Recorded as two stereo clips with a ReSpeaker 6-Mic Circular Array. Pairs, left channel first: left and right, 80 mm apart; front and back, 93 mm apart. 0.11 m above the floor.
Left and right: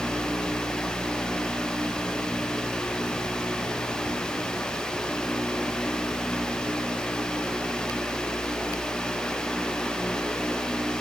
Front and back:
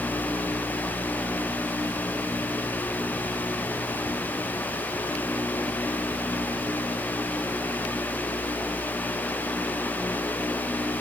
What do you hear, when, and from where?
Only background noise.